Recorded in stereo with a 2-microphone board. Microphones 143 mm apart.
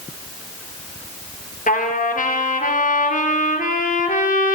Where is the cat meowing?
I don't hear a cat meowing.